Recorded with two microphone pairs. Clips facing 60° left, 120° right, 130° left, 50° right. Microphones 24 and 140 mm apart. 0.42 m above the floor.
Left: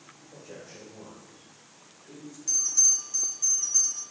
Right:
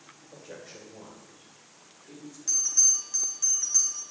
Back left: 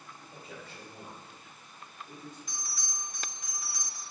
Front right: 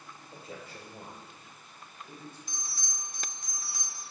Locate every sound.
0.3 s a man speaking: 90° right, 1.6 m; by 2.4 s 45° right, 2 m
2.5 s a bell: 75° right, 1.4 m